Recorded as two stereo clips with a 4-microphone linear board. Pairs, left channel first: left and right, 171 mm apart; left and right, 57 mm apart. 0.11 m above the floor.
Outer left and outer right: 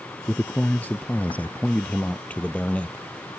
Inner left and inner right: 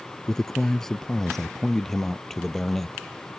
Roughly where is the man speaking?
Centre.